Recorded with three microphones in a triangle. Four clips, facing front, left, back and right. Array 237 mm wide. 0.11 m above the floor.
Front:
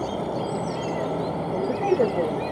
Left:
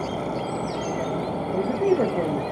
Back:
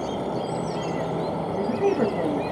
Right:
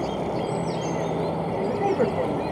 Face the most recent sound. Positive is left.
turn(degrees=60)